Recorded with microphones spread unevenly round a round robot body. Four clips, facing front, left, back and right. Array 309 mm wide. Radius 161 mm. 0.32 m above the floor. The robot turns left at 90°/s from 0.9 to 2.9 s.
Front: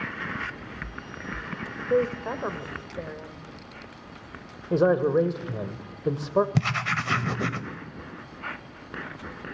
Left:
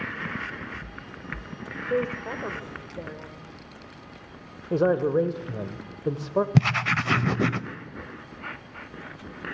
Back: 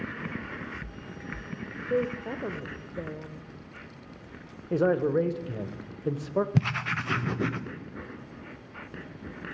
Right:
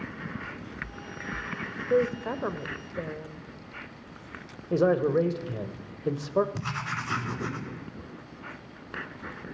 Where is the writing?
75° left, 0.6 m.